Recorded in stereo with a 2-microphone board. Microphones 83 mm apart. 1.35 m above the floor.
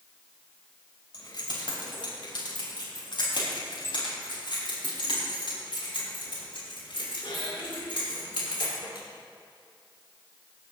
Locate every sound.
1.1 s keys jangling: 60° left (ahead or behind), 4 m; by 9.0 s 80° left, 9 m